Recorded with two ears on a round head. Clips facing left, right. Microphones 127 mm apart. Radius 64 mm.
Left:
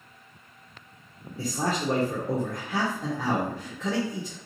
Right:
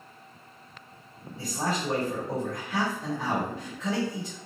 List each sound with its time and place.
1.4 s a man speaking: 35° left (ahead or behind), 0.9 m